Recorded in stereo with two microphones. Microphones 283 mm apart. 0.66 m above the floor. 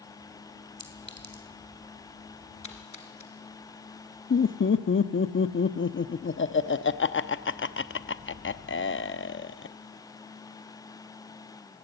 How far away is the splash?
About 2.5 m.